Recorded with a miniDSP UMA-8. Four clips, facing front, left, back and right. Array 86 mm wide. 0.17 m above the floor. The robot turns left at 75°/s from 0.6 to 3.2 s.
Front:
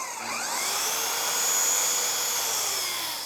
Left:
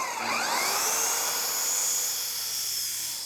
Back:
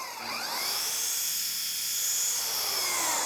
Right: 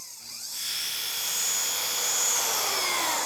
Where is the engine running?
80° left; by 3.3 s 115° right.